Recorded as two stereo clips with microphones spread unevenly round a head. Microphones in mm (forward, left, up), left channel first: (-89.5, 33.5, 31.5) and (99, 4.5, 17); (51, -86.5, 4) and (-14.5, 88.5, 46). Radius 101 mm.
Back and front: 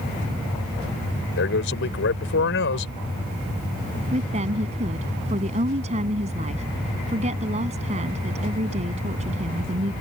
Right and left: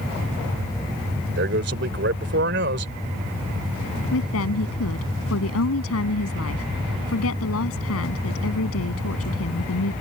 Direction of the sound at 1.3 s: 145° left.